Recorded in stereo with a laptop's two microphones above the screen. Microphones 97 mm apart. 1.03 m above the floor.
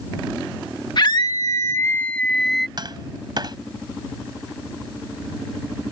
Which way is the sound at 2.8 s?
50° right (ahead or behind).